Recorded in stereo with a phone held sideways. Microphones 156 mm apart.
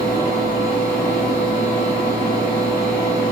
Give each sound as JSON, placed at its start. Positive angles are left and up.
{"t": 0.0, "sound": "a fan", "side_deg": 65, "distance_m": 1.1}